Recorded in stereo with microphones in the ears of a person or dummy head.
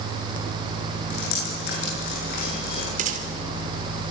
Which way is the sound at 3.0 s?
50° right (ahead or behind).